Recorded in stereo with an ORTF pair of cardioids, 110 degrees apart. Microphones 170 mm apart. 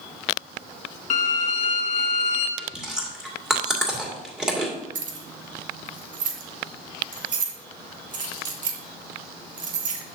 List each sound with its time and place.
1.1 s a violin: 45° left, 1.3 m
2.6 s chewing: 5° right, 2 m
5.0 s keys jangling: 55° right, 1.5 m